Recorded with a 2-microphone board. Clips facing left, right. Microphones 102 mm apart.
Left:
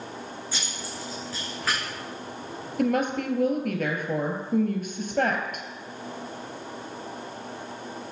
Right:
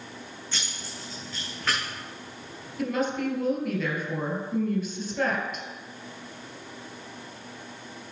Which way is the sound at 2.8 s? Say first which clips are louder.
Left 3 dB; 50° left (ahead or behind).